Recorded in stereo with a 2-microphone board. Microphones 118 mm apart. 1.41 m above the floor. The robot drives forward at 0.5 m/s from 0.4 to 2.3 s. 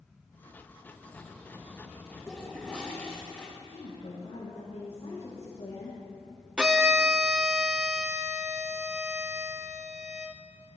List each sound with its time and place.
0.9 s a bird: 10° left (ahead or behind), 1.0 m; by 3.3 s 5° left (ahead or behind), 1.7 m
2.3 s a toilet flushing: 10° left (ahead or behind), 2 m
3.6 s a woman speaking: 60° left (ahead or behind), 1.7 m
6.6 s a violin: 5° right (ahead or behind), 0.6 m